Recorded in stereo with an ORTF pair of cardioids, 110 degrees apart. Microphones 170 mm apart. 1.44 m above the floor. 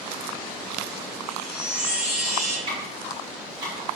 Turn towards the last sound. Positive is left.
turn(degrees=-30)